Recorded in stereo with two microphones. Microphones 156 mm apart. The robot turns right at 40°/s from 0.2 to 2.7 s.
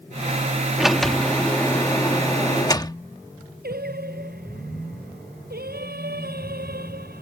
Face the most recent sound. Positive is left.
turn(degrees=-85)